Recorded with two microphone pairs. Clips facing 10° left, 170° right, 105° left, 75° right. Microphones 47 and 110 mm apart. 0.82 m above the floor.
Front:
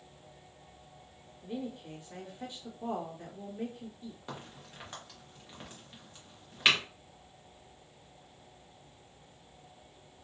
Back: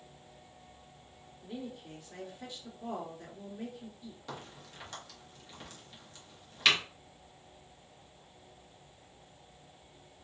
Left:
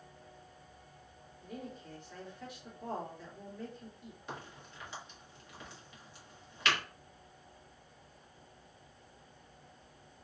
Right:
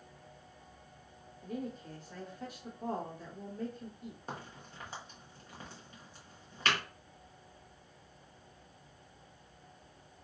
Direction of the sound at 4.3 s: 50° right.